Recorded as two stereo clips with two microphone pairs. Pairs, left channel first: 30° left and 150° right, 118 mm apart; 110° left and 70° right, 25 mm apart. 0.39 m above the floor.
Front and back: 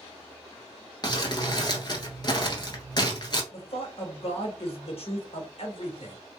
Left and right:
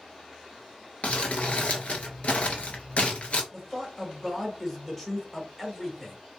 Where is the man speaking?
30° left, 1.3 m.